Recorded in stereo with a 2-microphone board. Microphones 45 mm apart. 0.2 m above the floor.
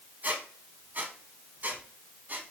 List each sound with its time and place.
0.2 s a squeak: 45° right (ahead or behind), 0.8 m